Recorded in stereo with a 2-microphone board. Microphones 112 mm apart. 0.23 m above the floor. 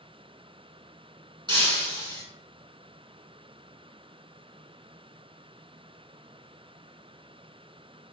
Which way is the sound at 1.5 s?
45° right (ahead or behind).